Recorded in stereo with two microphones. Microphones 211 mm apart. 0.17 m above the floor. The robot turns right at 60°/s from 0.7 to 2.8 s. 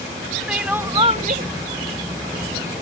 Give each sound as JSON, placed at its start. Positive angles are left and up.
{"t": 0.5, "sound": "crying", "azimuth_deg": -175}